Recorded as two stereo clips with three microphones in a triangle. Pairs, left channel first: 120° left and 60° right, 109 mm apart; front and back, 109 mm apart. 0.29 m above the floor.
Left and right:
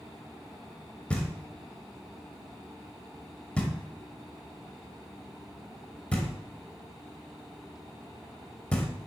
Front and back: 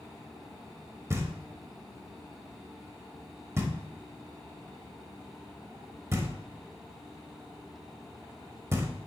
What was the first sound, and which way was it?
Knocking, straight behind.